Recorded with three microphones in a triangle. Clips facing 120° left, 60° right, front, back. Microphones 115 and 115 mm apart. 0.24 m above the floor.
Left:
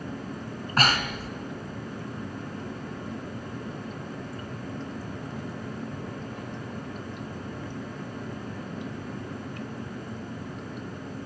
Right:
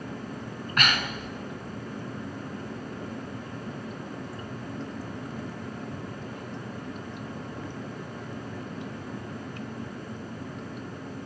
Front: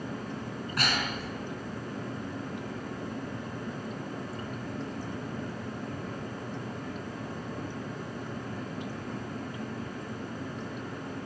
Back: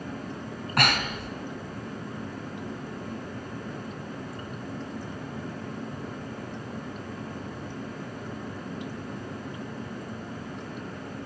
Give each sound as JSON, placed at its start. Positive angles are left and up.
{"t": 0.8, "sound": "breathing", "azimuth_deg": 170, "distance_m": 1.6}